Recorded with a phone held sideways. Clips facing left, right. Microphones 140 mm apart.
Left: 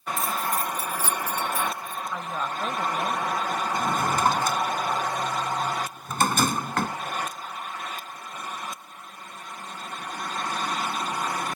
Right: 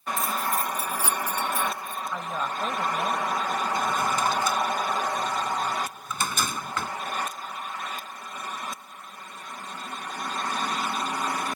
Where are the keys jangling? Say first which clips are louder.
Even; centre (ahead or behind); by 2.0 s 25° right (ahead or behind).